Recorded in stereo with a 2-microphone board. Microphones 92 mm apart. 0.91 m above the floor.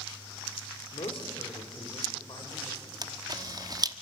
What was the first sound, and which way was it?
A man speaking, 70° left (ahead or behind).